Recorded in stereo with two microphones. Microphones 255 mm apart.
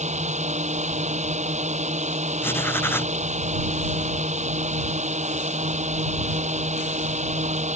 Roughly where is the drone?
Right.